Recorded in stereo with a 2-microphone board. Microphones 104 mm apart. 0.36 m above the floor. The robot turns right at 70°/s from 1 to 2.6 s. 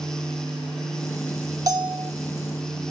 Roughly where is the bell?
Behind right.